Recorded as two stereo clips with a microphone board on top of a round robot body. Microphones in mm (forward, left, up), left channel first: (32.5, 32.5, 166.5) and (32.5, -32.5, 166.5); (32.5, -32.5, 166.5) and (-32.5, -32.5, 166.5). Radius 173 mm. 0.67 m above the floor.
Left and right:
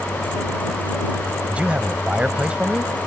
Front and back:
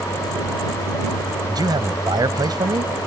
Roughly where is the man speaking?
Behind.